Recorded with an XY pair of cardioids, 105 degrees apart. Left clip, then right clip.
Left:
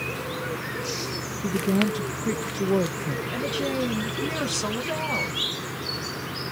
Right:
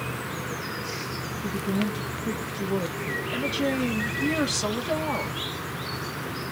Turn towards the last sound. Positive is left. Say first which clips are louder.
# even
turn(degrees=0)